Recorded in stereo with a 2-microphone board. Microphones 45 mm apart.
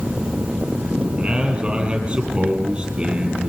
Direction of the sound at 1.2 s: 20° right (ahead or behind).